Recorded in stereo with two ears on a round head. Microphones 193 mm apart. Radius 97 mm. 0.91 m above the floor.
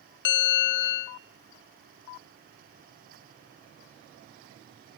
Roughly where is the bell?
Left.